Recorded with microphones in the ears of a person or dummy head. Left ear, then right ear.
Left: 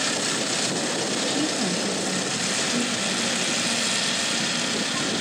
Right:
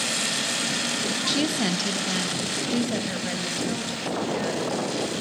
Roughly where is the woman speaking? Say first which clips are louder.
Even; centre.